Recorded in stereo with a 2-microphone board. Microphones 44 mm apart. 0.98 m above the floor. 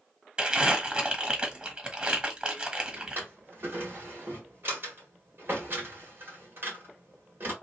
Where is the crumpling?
30° right (ahead or behind), 1.1 m.